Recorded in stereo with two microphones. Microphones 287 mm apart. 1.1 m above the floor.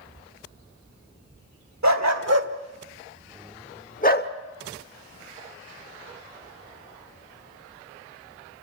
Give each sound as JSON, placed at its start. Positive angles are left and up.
{"t": 1.8, "sound": "a dog barking", "side_deg": -70, "distance_m": 1.9}